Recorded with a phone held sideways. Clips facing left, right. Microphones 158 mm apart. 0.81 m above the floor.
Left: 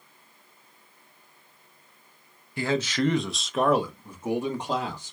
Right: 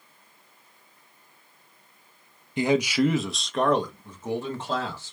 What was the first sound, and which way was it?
A man speaking, 20° right (ahead or behind).